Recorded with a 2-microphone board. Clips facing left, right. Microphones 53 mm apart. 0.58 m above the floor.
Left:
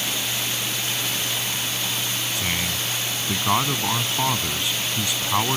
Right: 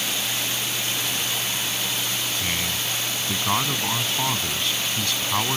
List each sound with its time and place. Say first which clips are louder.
2.4 s a man speaking: left 1 dB; 10° left (ahead or behind)